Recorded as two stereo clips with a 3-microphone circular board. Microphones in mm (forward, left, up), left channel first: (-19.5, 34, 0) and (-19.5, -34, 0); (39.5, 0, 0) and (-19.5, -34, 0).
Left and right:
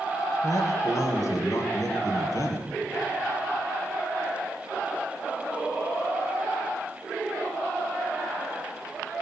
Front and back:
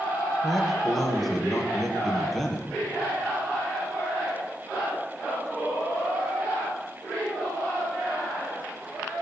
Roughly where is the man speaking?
Behind left.